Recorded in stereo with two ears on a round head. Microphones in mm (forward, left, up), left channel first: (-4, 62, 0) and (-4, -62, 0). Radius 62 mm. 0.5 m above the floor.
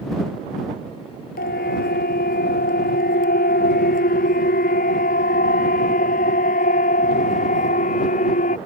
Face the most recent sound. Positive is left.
turn(degrees=55)  # may be behind; listen again after turning